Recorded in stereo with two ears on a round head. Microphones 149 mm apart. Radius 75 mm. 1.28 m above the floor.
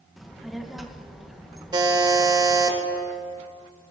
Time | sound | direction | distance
0.2 | a child speaking | centre (ahead or behind) | 0.9 m
1.7 | a buzzer | 25° right (ahead or behind) | 1.4 m